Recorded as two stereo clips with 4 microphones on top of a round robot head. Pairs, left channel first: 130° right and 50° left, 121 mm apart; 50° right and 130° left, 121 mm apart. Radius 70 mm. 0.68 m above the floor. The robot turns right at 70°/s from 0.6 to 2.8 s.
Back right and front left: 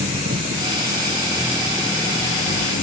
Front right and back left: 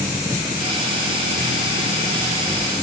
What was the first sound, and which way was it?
An engine running, 65° left.